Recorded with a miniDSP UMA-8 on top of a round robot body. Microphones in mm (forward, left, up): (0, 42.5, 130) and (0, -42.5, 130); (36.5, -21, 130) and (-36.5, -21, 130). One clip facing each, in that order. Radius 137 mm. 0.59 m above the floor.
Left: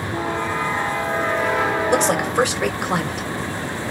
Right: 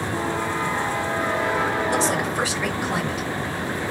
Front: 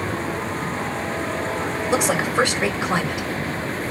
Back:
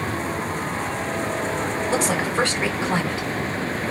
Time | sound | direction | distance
1.9 | a woman speaking | 70° left | 2.5 m